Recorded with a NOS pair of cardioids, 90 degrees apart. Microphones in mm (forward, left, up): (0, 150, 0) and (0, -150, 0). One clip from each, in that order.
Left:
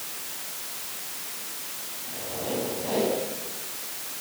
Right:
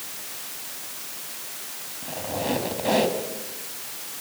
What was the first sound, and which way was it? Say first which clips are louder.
A squeak: right 6 dB; 65° right.